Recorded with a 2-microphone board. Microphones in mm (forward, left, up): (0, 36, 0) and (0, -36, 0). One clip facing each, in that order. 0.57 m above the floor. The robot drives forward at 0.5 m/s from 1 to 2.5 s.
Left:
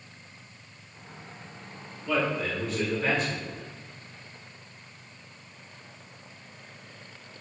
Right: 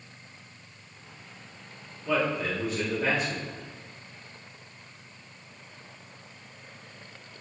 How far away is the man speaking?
About 0.9 m.